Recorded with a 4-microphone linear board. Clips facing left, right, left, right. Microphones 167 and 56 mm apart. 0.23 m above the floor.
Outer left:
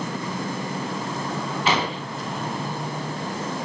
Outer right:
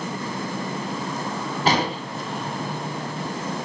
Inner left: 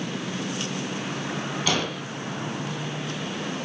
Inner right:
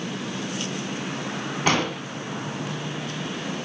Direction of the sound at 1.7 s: 40° right (ahead or behind).